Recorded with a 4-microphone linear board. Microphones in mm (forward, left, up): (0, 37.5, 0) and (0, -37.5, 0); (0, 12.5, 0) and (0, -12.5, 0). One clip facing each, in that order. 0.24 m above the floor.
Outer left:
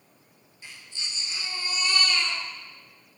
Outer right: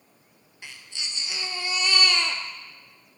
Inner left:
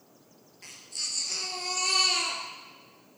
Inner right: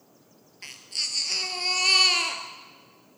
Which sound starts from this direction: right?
A baby crying, at 0.6 s.